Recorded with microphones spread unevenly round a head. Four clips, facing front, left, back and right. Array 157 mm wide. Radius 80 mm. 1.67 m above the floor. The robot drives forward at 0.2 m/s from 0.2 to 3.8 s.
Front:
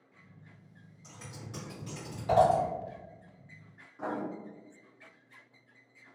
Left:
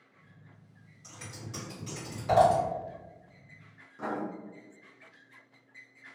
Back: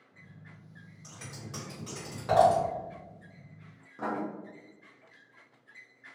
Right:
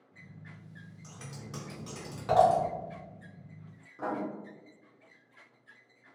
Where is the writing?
170° right, 1.1 m.